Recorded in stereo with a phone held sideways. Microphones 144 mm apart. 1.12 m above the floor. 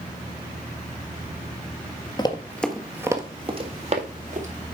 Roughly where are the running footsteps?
Left.